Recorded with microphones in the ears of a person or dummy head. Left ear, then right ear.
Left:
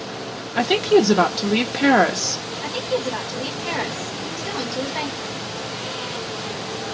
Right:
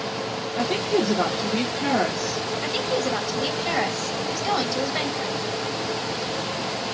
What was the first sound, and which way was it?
A woman speaking, 50° left (ahead or behind).